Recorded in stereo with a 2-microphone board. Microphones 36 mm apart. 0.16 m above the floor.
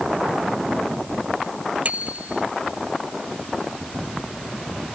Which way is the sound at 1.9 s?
45° right (ahead or behind).